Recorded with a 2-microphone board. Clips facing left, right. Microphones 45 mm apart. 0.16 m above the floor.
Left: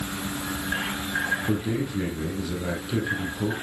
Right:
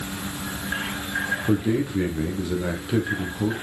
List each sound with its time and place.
1.5 s a man speaking: 20° right (ahead or behind), 6 m